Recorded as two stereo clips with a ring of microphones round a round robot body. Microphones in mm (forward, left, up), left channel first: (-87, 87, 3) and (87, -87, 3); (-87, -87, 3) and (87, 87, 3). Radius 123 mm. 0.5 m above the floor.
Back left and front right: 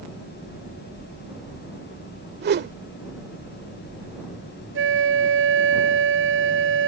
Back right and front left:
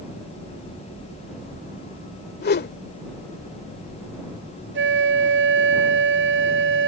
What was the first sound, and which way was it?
A whoosh, 90° right.